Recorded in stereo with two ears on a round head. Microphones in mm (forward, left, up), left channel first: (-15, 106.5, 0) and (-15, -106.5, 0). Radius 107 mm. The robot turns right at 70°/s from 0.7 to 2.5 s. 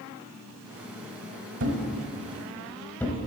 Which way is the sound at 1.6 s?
55° right (ahead or behind).